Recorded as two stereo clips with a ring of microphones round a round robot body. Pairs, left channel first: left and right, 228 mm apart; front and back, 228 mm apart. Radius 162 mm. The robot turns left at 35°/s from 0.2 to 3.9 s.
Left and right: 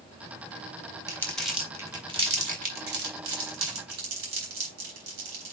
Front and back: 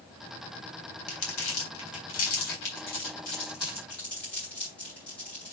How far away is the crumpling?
About 3.5 m.